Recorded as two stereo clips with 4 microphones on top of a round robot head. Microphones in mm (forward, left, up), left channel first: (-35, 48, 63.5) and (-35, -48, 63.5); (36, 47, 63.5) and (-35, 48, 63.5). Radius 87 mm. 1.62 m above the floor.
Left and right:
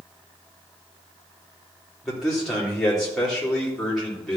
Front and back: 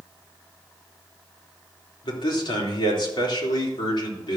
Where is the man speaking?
Straight ahead, 3.5 m.